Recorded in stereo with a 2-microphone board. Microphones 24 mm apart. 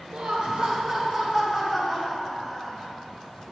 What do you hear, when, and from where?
0.1 s laughter: 60° right (ahead or behind), 0.5 m; by 2.9 s 5° right (ahead or behind), 2 m